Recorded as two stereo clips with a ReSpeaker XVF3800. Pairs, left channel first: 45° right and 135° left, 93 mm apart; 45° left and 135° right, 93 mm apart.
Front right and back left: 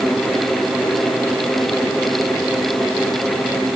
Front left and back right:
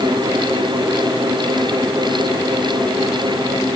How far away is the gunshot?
No gunshot in this recording.